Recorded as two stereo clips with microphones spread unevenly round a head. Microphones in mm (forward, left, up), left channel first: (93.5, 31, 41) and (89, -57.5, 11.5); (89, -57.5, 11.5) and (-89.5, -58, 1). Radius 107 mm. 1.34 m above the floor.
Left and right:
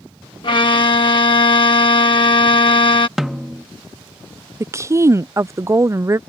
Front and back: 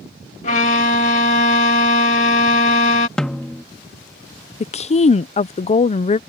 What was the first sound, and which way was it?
A violin, 60° left.